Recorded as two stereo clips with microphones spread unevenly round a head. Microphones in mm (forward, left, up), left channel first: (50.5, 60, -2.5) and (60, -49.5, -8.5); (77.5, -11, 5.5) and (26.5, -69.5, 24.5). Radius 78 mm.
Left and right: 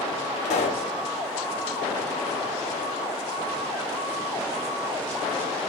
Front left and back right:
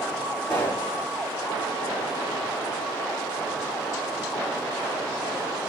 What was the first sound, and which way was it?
A pop, 125° left.